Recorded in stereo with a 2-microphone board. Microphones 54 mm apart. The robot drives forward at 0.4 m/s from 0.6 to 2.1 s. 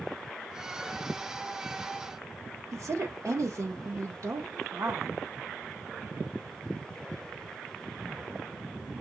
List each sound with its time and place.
2.7 s a woman speaking: 85° right, 2 m